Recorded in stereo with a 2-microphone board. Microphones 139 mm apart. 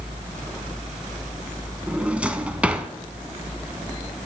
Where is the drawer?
10° right (ahead or behind), 0.6 m.